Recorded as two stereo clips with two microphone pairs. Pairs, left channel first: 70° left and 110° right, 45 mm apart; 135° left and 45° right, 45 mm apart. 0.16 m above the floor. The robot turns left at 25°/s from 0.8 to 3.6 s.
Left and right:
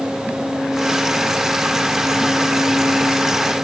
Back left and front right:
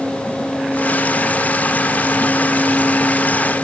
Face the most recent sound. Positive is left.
No sound to turn to.